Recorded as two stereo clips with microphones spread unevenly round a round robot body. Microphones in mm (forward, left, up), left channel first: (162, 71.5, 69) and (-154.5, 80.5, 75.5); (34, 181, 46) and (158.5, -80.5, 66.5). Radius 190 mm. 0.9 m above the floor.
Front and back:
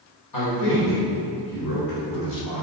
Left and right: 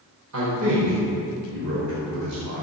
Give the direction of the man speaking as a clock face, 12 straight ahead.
1 o'clock.